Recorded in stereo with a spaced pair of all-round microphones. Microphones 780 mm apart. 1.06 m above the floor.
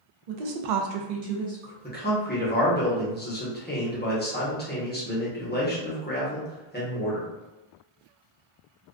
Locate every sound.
0.3 s a woman speaking: 55° right (ahead or behind), 0.7 m; by 1.7 s 40° right (ahead or behind), 0.9 m
1.8 s a man speaking: 15° left (ahead or behind), 0.8 m